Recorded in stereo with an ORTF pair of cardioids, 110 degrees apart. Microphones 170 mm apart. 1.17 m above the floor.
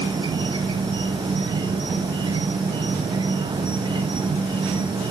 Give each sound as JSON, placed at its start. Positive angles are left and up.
{"t": 0.0, "sound": "an insect", "azimuth_deg": -25, "distance_m": 0.9}